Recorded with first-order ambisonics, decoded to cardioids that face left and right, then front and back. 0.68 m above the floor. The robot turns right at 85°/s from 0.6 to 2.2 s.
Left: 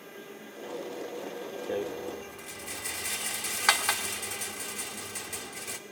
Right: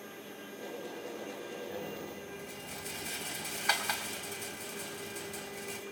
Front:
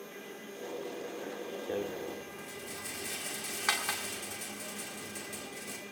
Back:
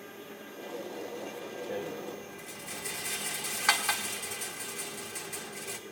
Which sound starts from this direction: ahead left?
A rattle, at 1.7 s.